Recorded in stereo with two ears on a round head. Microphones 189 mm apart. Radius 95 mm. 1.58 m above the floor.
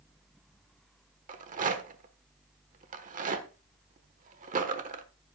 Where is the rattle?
40° right (ahead or behind), 1.2 m.